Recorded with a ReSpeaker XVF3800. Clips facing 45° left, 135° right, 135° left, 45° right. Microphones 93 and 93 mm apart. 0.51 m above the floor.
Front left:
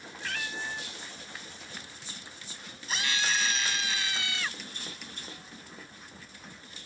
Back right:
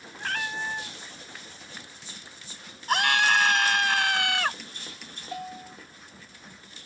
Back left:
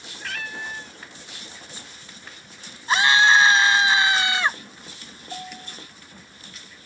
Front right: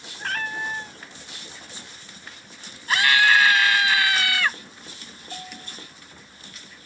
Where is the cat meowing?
90° right.